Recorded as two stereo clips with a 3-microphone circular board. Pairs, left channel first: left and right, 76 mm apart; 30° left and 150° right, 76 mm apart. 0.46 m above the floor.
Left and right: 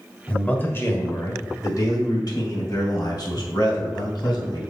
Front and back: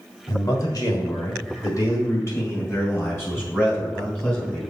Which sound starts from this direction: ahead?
A man speaking, at 0.3 s.